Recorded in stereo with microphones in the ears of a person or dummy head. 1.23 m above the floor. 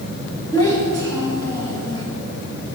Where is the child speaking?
20° left (ahead or behind), 1.3 m.